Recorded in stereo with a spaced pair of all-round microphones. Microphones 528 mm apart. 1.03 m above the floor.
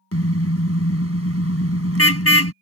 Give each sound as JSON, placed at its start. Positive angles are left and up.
{"t": 0.1, "sound": "a car horn", "side_deg": 25}